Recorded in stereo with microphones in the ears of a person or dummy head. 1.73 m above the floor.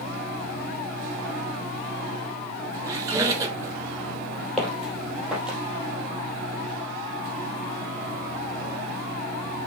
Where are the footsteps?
5° left (ahead or behind), 3 m; by 5.6 s 5° right (ahead or behind), 2.5 m.